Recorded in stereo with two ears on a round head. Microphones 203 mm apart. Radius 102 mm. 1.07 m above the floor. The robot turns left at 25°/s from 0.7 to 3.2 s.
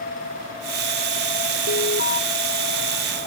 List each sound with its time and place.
1.7 s an alarm: 50° left (ahead or behind); by 2.2 s 35° left (ahead or behind)